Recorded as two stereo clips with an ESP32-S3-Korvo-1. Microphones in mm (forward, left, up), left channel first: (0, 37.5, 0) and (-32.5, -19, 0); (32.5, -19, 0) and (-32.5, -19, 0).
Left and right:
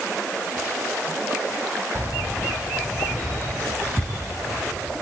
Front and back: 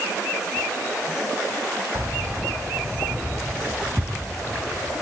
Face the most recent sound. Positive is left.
turn(degrees=115)